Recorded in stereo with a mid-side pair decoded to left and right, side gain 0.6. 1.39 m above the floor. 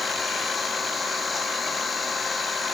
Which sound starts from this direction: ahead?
An engine running, at 0.0 s.